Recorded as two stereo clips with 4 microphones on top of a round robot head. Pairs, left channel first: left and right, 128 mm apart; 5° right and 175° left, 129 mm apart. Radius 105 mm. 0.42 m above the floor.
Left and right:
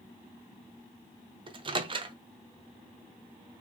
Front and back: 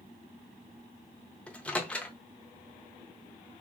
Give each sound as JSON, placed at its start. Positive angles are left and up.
{"t": 1.5, "sound": "a microwave", "azimuth_deg": -80, "distance_m": 0.6}